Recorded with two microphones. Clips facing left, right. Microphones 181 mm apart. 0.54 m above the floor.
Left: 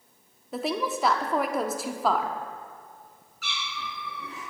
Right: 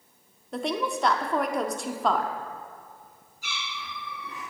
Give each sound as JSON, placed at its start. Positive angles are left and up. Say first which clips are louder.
{"t": 0.5, "sound": "a woman speaking", "louder": "even", "side_deg": 5, "distance_m": 0.8}
{"t": 3.4, "sound": "a cat meowing", "louder": "left 2 dB", "side_deg": 75, "distance_m": 4.5}